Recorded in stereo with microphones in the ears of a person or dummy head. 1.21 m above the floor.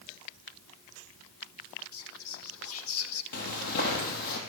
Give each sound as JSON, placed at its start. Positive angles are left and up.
{"t": 1.9, "sound": "whispering", "side_deg": 75, "distance_m": 1.6}
{"t": 3.3, "sound": "footsteps", "side_deg": 55, "distance_m": 2.5}